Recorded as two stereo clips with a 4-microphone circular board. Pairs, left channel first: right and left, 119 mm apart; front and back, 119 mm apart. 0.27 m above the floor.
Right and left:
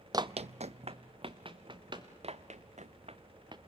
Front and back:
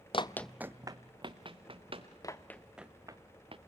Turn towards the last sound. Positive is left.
turn(degrees=140)